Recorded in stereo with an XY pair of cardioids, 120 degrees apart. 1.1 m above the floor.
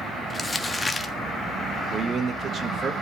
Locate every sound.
0.3 s crumpling: 10° left, 1.3 m
1.9 s a man speaking: 45° right, 1.3 m